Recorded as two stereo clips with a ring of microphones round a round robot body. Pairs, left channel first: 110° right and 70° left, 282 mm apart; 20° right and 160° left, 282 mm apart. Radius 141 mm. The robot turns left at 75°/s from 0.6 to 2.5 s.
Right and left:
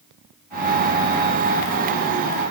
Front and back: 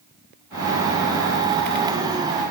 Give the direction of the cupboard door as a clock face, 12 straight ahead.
No cupboard door in this recording.